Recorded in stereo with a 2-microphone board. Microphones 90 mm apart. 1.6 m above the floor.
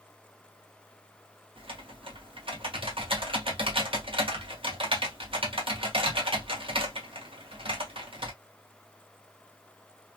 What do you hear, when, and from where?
1.6 s typing on a keyboard: 85° right, 1.2 m